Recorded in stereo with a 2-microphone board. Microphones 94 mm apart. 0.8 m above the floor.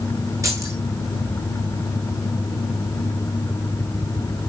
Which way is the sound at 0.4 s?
30° right (ahead or behind).